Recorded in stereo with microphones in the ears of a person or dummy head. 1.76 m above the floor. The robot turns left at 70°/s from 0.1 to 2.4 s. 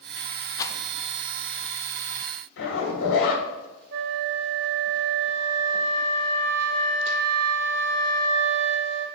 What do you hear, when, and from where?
0.6 s a rattle: 25° left (ahead or behind), 0.5 m; by 0.8 s 10° left (ahead or behind), 0.5 m
2.6 s a zipper: 80° left, 2.5 m
3.9 s a flute: 65° right (ahead or behind), 0.7 m